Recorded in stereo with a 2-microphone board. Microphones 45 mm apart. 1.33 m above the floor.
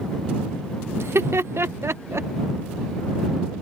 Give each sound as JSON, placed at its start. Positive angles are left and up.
{"t": 1.0, "sound": "laughter", "side_deg": -75}